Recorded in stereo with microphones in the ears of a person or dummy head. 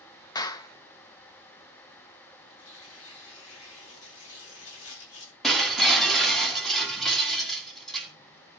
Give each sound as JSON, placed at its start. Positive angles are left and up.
{"t": 0.3, "sound": "a clap", "side_deg": 20, "distance_m": 1.1}
{"t": 2.5, "sound": "tearing paper", "side_deg": 75, "distance_m": 7.0}
{"t": 5.4, "sound": "breaking glass", "side_deg": 5, "distance_m": 1.9}